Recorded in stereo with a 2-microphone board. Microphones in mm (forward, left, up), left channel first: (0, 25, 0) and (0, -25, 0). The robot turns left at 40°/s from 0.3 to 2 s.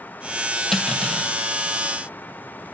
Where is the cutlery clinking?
Centre (ahead or behind), 2.5 m; by 1.3 s 25° left (ahead or behind), 2.5 m.